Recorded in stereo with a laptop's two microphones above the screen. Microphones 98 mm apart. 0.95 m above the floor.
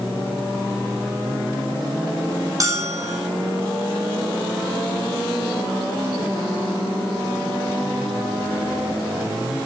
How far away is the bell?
About 4.5 m.